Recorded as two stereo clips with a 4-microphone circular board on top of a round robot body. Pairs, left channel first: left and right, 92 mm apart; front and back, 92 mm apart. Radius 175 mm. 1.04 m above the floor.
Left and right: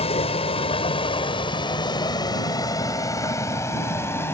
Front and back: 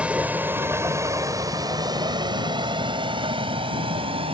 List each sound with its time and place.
0.0 s a vehicle: 100° left; by 4.3 s 155° left